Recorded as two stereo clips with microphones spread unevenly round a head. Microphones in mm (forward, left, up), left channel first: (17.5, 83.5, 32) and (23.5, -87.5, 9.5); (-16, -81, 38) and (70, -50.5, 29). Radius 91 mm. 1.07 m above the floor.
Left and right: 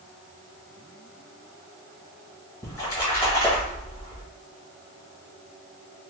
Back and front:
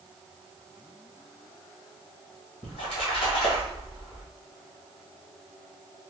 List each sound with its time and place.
2.6 s a splash: 170° left, 1.4 m